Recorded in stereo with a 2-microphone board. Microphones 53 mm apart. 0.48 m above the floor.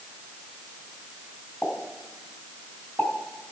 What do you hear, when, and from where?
1.6 s a pop: 35° left (ahead or behind), 3 m